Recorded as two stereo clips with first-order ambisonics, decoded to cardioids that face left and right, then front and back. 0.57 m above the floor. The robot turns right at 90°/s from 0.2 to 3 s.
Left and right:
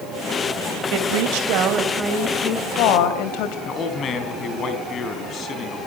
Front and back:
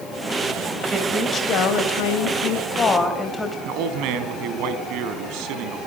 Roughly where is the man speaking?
Behind left.